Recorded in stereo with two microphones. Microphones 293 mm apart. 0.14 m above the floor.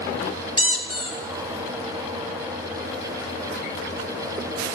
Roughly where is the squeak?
Left.